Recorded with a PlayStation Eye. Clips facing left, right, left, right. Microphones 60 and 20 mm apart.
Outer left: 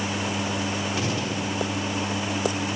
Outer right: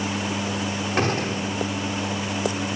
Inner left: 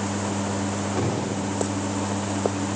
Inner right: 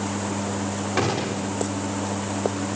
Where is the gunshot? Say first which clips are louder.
Outer right 3 dB, inner right 5 dB; 50° right (ahead or behind), 4 m.